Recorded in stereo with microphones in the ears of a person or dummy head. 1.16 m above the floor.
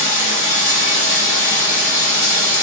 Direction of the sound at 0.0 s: 15° right (ahead or behind).